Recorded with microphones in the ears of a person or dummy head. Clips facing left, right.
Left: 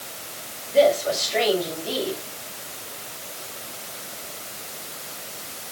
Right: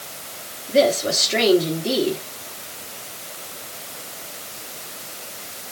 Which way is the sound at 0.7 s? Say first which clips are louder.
Even; 70° right (ahead or behind).